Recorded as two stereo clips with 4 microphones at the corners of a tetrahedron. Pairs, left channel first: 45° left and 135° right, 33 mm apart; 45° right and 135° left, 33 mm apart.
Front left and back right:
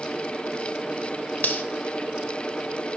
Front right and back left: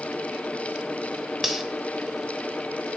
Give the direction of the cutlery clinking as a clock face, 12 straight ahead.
10 o'clock.